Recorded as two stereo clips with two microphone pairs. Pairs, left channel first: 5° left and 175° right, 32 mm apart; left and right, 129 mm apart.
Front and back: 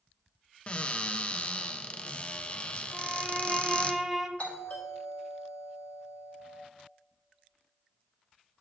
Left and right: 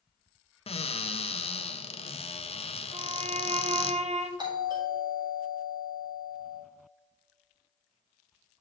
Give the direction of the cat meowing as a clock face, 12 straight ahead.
No cat meowing in this recording.